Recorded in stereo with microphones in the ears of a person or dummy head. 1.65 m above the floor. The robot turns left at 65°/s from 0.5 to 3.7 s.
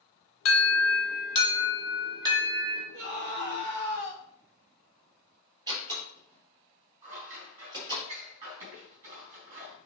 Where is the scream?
80° right, 3 m; by 4.2 s 130° right, 3 m.